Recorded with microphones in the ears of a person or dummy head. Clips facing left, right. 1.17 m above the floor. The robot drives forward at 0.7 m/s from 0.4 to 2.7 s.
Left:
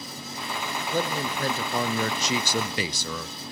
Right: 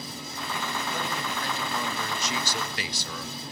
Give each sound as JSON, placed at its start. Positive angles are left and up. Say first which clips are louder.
{"t": 0.9, "sound": "a man speaking", "louder": "left 5 dB", "side_deg": 30, "distance_m": 1.5}